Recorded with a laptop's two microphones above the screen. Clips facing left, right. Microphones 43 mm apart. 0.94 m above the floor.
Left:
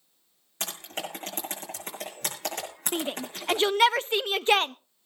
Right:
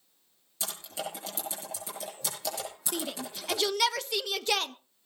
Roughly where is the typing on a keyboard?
Left.